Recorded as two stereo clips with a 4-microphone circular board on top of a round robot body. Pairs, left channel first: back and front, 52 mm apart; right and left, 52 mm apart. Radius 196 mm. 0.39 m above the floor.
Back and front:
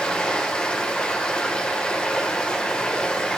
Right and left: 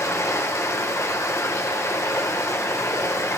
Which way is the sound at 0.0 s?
110° right.